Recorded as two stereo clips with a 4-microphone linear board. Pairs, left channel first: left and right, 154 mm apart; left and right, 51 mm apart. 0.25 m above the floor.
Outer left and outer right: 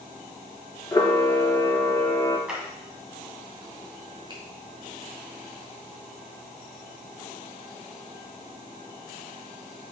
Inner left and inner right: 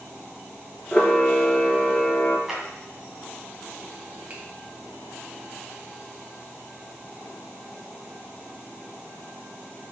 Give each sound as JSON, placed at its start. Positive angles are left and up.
{"t": 0.9, "sound": "a camera shutter", "side_deg": 20, "distance_m": 0.9}
{"t": 2.5, "sound": "a clap", "side_deg": -5, "distance_m": 1.8}
{"t": 4.3, "sound": "a finger snap", "side_deg": -35, "distance_m": 1.6}